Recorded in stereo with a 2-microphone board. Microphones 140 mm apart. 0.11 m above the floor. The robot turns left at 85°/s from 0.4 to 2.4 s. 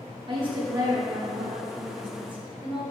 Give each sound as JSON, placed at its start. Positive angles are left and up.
{"t": 0.3, "sound": "a woman speaking", "azimuth_deg": -100, "distance_m": 1.9}